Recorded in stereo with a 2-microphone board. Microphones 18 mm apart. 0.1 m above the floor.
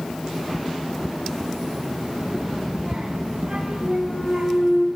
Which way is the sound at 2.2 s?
10° right (ahead or behind).